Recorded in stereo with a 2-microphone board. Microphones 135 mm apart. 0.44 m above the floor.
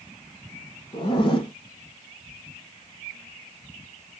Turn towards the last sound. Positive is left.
turn(degrees=40)  # may be behind; listen again after turning